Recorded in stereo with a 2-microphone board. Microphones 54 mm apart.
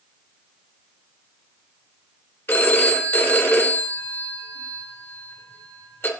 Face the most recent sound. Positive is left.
turn(degrees=45)  # may be behind; listen again after turning